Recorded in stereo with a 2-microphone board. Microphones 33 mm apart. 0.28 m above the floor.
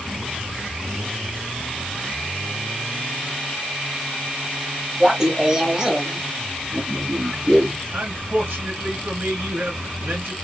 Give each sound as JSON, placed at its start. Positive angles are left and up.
{"t": 5.0, "sound": "laughter", "side_deg": -15, "distance_m": 1.0}
{"t": 7.9, "sound": "a man speaking", "side_deg": -70, "distance_m": 3.0}